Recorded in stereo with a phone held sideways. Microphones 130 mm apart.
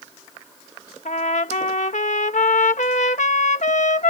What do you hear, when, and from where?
1.1 s a trumpet: 80° left